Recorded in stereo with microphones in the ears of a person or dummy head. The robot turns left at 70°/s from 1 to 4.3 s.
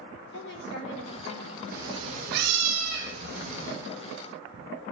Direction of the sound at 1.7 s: 5° right.